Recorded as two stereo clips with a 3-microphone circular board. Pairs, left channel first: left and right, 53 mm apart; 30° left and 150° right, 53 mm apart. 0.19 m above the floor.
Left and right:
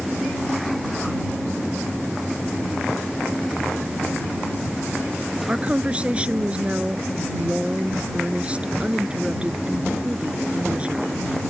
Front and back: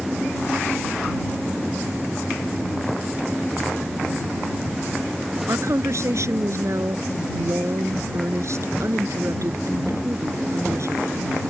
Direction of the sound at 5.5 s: 155° right.